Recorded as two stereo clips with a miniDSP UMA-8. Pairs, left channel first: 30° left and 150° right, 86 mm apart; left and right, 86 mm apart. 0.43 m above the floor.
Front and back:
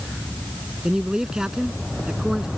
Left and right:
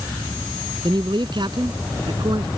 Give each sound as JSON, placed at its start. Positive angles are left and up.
{"t": 0.8, "sound": "a man speaking", "azimuth_deg": -65}